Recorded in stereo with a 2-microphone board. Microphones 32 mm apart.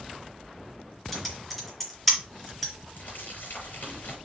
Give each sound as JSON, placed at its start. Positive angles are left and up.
{"t": 1.1, "sound": "typing on a keyboard", "side_deg": 5, "distance_m": 3.5}
{"t": 3.0, "sound": "crumpling", "side_deg": 65, "distance_m": 4.5}